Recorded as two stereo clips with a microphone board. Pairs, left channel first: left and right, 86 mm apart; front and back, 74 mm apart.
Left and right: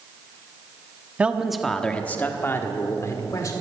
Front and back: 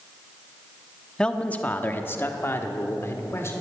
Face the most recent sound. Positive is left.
turn(degrees=50)